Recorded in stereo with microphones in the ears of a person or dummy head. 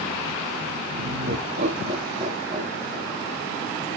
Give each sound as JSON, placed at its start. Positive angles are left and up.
{"t": 1.0, "sound": "laughter", "side_deg": -70, "distance_m": 0.9}